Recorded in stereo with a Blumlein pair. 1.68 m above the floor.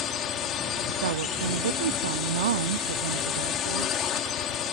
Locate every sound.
0.0 s a drone: 30° left
1.0 s a woman speaking: 60° right